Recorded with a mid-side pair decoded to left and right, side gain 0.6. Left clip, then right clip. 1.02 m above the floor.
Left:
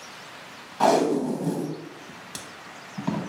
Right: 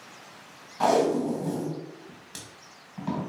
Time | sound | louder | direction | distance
0.8 | tape being pulled | left 2 dB | 25° left | 0.7 m